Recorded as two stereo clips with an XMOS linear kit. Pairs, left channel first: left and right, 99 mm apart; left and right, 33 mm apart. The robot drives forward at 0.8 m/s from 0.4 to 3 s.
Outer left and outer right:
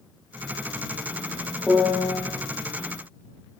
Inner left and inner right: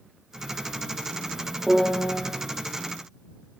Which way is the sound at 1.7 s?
10° right (ahead or behind).